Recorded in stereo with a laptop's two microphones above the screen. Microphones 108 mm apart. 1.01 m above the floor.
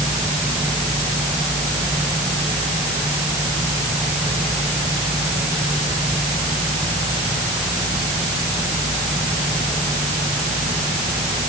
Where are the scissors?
No scissors in this recording.